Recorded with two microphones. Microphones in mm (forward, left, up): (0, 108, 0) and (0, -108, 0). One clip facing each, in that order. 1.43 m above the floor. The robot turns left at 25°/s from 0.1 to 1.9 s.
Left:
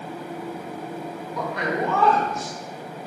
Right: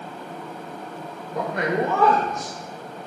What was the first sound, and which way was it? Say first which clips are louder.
A man speaking: right 3 dB; 55° right (ahead or behind).